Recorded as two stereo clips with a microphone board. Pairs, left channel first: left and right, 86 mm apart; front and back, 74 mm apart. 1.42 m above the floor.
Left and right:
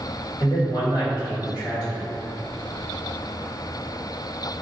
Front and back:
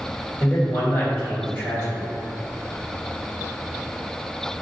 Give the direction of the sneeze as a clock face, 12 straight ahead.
I don't hear a sneeze.